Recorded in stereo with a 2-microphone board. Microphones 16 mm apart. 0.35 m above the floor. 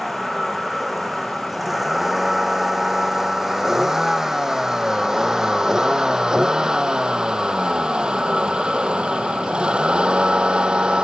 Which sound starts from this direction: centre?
A vehicle, at 0.0 s.